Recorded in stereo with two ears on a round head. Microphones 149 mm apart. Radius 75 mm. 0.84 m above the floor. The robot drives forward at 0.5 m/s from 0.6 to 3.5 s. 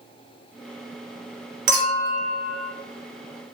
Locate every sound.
1.7 s a clink: 55° right (ahead or behind), 1.0 m; by 2.7 s 35° right (ahead or behind), 1.3 m